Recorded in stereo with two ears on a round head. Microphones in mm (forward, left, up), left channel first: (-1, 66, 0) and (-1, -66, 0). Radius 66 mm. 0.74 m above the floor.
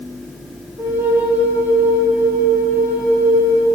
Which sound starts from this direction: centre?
A flute, at 0.8 s.